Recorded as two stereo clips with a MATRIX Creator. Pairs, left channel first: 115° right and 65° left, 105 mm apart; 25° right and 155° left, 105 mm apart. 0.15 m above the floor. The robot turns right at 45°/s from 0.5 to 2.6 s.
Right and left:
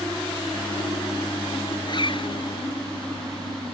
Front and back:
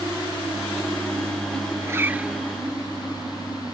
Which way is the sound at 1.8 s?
145° right.